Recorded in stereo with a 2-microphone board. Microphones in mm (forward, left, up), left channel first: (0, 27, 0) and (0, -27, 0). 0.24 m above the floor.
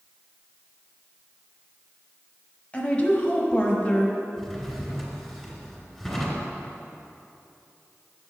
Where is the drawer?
Centre (ahead or behind), 1.8 m.